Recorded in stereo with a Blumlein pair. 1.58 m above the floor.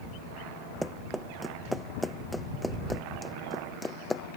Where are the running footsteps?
5° right; by 4.2 s 10° left.